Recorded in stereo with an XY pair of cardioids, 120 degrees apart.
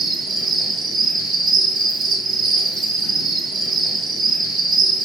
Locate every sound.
0.0 s an insect: 65° right, 0.9 m